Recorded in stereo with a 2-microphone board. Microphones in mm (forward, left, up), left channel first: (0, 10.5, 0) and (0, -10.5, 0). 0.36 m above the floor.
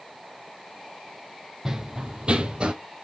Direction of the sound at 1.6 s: 25° right (ahead or behind).